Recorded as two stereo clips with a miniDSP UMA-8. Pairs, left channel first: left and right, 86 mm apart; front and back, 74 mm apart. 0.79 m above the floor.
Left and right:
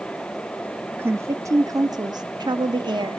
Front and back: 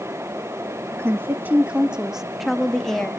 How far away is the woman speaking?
About 0.9 m.